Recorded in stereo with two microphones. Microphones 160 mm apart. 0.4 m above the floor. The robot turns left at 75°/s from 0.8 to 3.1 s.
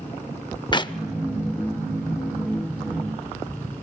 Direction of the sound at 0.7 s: 30° left (ahead or behind).